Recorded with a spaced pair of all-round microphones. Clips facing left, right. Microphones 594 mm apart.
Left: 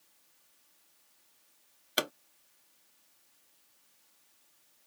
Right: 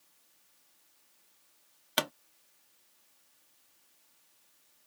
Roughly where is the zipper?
No zipper in this recording.